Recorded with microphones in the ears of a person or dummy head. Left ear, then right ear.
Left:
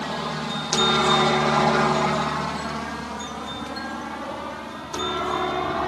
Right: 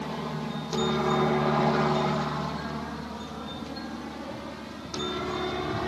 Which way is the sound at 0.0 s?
50° left (ahead or behind).